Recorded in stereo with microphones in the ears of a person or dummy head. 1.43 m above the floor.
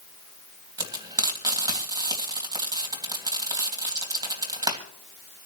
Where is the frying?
20° right (ahead or behind), 3 m.